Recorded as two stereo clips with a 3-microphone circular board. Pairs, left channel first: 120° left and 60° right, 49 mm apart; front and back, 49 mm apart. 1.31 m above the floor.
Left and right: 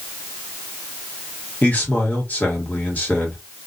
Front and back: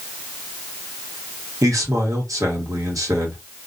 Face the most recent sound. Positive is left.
turn(degrees=180)